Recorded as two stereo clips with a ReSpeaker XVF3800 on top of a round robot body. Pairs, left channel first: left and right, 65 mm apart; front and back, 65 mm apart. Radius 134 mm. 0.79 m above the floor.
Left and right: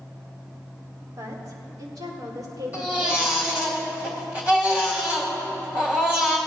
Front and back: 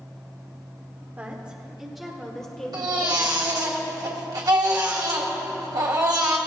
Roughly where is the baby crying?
Behind.